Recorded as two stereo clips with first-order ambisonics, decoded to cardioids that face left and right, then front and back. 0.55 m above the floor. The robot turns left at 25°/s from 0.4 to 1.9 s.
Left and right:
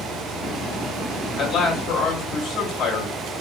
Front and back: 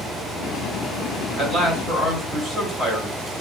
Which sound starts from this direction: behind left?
A man speaking, at 1.4 s.